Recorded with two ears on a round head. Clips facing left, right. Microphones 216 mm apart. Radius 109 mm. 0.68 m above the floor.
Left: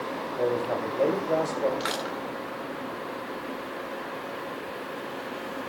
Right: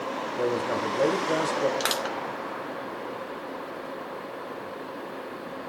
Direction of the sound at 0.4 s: 25° right (ahead or behind).